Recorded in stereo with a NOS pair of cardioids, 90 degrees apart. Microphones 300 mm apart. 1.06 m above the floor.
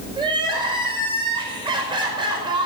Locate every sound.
0.2 s crying: 15° right, 5 m